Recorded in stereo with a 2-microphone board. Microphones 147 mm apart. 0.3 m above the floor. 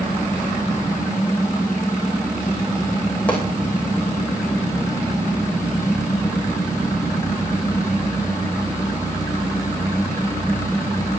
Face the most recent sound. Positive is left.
turn(degrees=10)  # may be behind; listen again after turning